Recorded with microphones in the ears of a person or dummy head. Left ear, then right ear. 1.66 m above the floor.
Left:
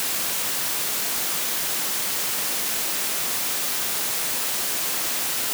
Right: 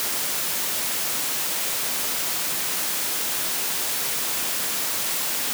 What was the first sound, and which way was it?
Only background noise.